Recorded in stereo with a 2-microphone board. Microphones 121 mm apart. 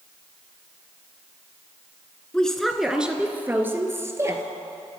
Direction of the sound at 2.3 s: 10° left (ahead or behind).